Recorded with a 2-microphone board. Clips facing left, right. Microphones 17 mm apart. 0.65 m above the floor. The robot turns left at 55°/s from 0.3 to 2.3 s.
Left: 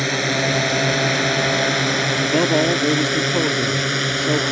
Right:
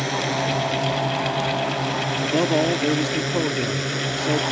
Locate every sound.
0.0 s a drone: 30° left (ahead or behind); by 4.5 s 25° left (ahead or behind)
2.2 s a man speaking: 10° left (ahead or behind); by 4.4 s 5° left (ahead or behind)